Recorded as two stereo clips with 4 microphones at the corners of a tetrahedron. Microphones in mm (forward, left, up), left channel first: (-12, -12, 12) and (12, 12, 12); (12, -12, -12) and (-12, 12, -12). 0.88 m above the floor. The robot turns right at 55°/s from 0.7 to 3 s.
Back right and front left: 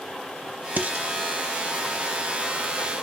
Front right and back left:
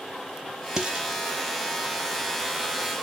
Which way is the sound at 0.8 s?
65° left.